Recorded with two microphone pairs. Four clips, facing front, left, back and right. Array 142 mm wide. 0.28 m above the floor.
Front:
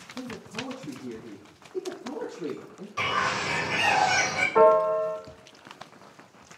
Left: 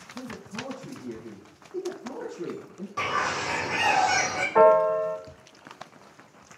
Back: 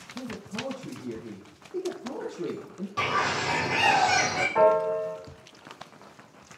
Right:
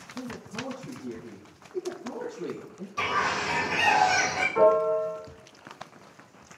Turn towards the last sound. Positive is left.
turn(degrees=75)